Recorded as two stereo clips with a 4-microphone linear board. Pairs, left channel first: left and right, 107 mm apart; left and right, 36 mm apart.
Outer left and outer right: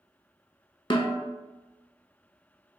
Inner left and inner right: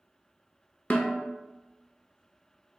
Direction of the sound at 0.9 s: 50° left (ahead or behind).